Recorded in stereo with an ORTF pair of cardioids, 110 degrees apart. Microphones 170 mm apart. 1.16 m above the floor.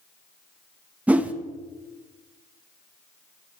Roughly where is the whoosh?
Ahead.